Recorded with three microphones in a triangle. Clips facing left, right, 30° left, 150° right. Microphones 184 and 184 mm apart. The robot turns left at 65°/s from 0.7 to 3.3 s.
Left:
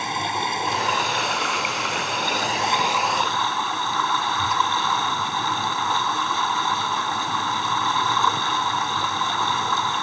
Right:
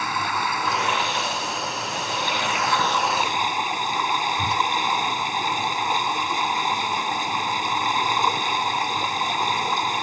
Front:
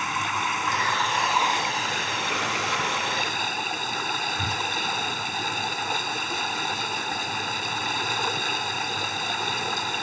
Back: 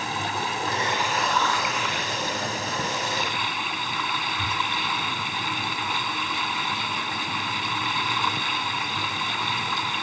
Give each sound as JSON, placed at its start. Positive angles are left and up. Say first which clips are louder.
{"t": 0.0, "sound": "running water", "louder": "left 1 dB, back 2 dB", "azimuth_deg": 155}
{"t": 4.4, "sound": "a whoosh", "louder": "even, even", "azimuth_deg": -25}